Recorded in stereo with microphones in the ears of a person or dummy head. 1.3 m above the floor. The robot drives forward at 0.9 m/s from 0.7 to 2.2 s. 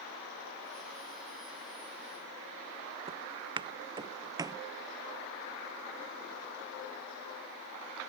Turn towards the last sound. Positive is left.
turn(degrees=-15)  # may be behind; listen again after turning